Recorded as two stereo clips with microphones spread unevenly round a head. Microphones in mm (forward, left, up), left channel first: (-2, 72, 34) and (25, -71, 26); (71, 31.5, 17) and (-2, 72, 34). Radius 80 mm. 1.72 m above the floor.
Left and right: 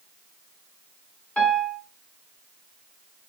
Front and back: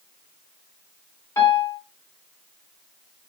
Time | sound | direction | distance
1.4 | a piano | 25° left | 1.2 m